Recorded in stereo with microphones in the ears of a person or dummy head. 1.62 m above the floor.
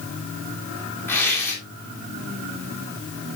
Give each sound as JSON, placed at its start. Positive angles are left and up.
{"t": 1.1, "sound": "tearing paper", "side_deg": 10, "distance_m": 3.0}